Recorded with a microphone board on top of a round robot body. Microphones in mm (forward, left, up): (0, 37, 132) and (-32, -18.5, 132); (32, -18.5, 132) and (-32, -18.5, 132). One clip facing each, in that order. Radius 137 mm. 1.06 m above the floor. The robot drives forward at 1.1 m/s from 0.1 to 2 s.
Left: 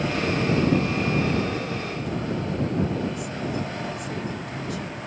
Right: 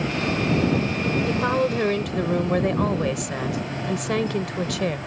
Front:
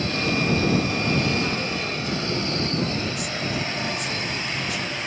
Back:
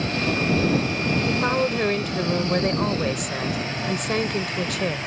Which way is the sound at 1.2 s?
135° right.